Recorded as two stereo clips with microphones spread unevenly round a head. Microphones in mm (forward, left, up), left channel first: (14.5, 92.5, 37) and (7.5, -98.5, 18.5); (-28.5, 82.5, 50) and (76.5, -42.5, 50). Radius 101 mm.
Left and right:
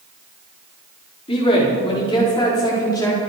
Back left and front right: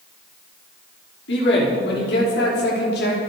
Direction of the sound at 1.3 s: 150° left.